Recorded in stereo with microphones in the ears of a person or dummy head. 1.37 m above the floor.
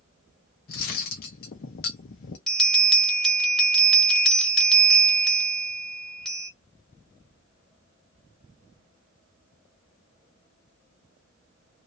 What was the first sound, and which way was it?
Cutlery clinking, 45° left (ahead or behind).